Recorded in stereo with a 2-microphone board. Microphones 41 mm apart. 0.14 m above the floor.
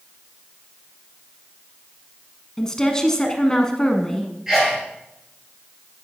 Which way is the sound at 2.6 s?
15° left (ahead or behind).